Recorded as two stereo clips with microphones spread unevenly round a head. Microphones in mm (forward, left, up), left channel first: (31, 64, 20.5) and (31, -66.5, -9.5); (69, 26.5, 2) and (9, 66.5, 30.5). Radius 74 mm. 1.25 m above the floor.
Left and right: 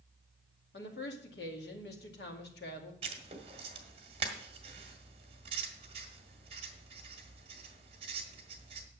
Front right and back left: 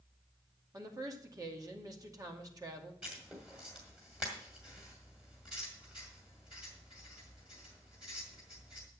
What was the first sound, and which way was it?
A woman speaking, 105° left.